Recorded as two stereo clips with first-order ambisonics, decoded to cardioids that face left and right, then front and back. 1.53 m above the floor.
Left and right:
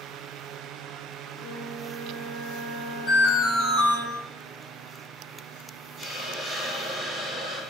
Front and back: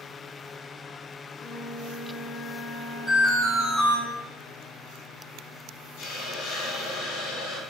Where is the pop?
I don't hear a pop.